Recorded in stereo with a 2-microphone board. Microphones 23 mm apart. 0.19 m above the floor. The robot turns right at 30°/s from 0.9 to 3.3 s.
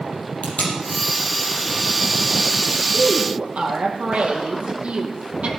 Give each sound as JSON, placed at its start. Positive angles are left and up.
{"t": 0.4, "sound": "tape being pulled", "side_deg": 75, "distance_m": 5.5}
{"t": 2.9, "sound": "a woman speaking", "side_deg": -65, "distance_m": 5.0}